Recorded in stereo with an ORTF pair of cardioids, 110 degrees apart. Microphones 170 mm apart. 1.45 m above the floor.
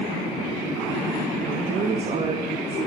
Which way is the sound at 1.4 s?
50° right.